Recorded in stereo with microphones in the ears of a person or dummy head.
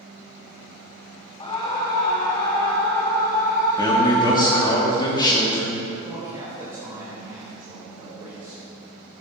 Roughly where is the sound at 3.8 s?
Left.